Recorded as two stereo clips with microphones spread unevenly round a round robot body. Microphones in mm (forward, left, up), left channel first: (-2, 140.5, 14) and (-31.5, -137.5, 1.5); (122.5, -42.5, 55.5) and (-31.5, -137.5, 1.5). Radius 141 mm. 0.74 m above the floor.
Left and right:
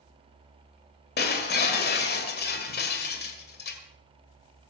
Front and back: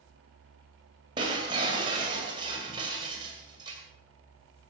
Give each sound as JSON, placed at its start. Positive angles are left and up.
{"t": 1.2, "sound": "breaking glass", "azimuth_deg": 140, "distance_m": 2.0}